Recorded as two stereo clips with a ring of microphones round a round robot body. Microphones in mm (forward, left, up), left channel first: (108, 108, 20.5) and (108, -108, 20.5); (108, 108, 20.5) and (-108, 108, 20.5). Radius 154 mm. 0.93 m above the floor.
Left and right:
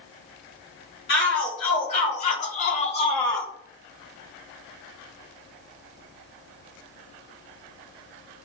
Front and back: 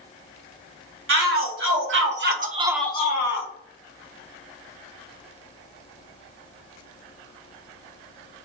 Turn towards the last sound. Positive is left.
turn(degrees=10)